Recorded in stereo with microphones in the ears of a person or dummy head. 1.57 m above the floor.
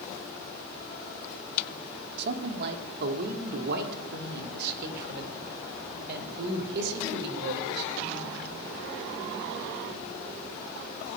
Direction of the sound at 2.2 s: 60° right (ahead or behind).